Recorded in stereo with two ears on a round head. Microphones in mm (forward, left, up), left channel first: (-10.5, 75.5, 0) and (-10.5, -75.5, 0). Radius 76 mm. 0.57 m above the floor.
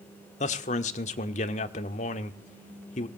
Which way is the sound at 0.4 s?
45° left (ahead or behind).